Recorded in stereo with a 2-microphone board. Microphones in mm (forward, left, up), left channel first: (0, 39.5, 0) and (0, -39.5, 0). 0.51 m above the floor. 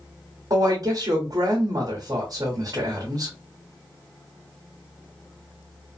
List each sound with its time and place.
0.5 s a woman speaking: 50° right (ahead or behind), 1.2 m